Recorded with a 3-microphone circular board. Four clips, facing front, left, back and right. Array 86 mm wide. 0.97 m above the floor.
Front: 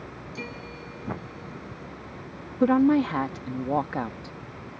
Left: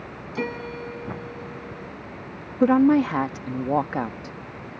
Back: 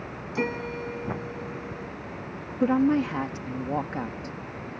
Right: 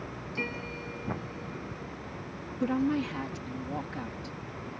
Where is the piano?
135° left.